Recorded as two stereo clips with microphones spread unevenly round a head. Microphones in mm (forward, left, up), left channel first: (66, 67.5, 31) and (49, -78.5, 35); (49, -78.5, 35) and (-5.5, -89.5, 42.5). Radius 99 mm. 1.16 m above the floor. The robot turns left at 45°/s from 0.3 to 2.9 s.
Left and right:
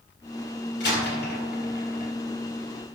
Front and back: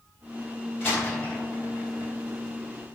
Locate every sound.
0.8 s a door slam: 110° left, 3.5 m; by 2.1 s 50° left, 3.5 m